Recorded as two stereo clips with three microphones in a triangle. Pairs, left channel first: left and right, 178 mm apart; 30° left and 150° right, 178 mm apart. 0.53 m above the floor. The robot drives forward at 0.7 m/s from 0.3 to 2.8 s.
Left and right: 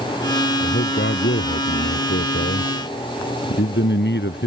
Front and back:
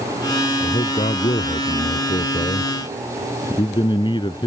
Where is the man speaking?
80° left; by 4.5 s 95° left.